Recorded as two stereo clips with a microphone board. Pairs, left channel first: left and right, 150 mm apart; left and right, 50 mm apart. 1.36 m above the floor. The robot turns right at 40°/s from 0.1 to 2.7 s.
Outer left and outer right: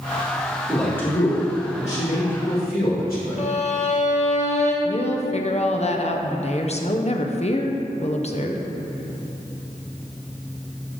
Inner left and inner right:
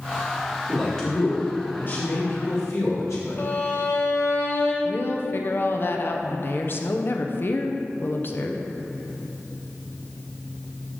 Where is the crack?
No crack in this recording.